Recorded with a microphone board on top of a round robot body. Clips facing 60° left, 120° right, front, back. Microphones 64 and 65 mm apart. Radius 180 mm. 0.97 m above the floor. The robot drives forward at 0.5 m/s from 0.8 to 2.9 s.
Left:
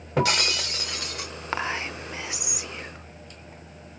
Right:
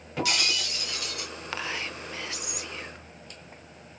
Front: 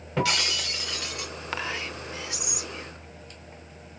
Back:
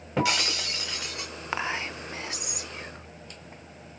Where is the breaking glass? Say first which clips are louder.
Left 5 dB, even; 105° left, 1.3 m; by 1.3 s 115° left, 1.4 m.